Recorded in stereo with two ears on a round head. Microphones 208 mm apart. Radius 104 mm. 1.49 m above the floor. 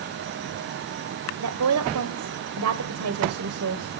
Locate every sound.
1.4 s a woman speaking: 75° right (ahead or behind), 1.2 m